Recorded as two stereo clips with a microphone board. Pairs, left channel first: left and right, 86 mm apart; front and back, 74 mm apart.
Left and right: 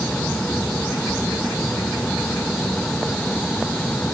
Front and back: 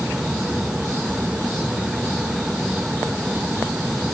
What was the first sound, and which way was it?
Only background noise.